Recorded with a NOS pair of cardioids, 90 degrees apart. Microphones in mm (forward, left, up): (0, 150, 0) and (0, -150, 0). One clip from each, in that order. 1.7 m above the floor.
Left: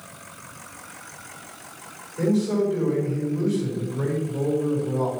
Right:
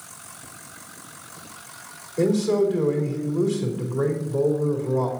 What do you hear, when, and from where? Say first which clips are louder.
2.2 s a man speaking: right 3 dB; 70° right, 4 m